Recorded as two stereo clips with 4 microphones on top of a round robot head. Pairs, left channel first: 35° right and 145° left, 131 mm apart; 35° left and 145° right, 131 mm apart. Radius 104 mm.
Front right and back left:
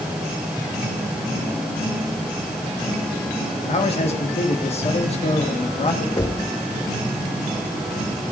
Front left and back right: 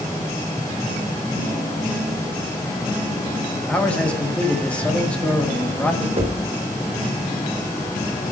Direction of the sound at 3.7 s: 45° right.